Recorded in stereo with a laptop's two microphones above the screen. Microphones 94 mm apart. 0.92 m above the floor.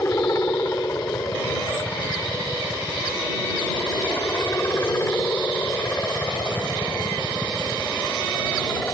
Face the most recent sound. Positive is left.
turn(degrees=25)  # may be behind; listen again after turning